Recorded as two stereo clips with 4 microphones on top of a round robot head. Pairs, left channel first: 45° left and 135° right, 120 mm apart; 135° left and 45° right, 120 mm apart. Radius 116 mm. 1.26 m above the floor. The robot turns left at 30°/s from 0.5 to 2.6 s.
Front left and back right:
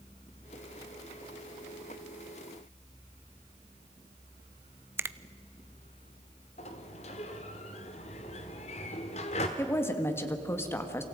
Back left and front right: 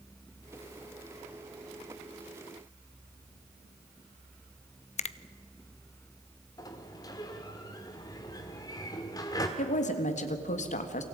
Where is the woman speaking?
115° left, 1.8 m.